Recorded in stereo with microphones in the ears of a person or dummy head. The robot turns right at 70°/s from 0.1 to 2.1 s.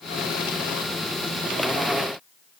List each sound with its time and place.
Only background noise.